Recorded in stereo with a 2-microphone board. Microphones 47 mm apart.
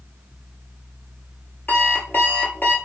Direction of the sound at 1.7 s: 45° left (ahead or behind).